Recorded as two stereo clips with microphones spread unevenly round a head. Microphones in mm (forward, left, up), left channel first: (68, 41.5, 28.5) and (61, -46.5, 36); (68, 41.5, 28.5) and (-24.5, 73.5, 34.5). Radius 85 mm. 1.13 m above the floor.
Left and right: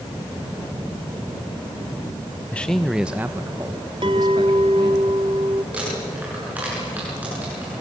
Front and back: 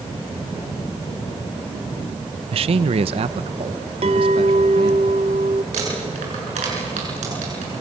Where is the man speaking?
155° left, 0.8 m; by 5.0 s 145° right, 1.9 m.